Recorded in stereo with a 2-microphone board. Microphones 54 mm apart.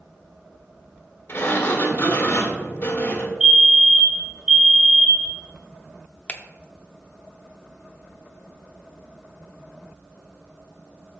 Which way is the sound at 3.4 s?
20° right (ahead or behind).